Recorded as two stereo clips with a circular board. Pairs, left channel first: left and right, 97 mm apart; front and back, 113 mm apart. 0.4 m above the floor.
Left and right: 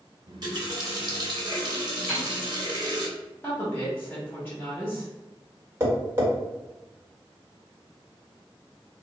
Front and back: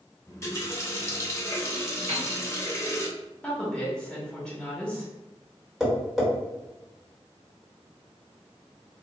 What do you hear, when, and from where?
0.3 s a running tap: 55° right, 0.7 m
2.1 s a piano: 175° left, 1.9 m
3.4 s a woman speaking: 75° left, 1.0 m
5.8 s tapping: 95° right, 1.3 m